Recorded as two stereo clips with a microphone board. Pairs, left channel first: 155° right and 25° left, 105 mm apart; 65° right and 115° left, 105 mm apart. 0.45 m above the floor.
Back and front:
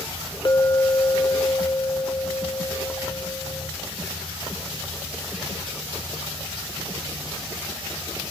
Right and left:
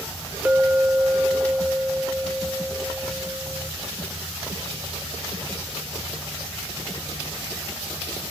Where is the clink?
175° right, 0.8 m.